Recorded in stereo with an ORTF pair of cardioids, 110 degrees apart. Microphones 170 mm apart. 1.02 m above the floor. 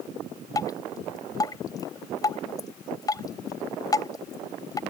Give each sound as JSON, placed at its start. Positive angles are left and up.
{"t": 0.6, "sound": "dripping", "azimuth_deg": 20}